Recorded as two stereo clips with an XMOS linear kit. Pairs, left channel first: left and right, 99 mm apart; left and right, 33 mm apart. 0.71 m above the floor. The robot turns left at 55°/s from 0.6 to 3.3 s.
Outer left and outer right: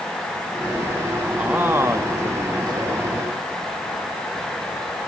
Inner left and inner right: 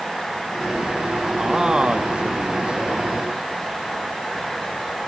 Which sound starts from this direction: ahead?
A man speaking, at 1.4 s.